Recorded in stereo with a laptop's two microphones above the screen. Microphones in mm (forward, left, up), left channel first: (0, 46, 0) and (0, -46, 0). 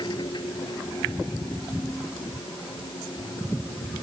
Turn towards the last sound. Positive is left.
turn(degrees=55)  # may be behind; listen again after turning